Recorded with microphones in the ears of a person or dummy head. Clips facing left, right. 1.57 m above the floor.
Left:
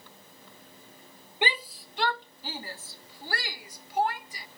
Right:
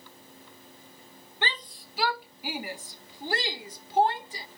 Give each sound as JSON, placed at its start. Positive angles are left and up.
{"t": 1.4, "sound": "a shout", "side_deg": 15}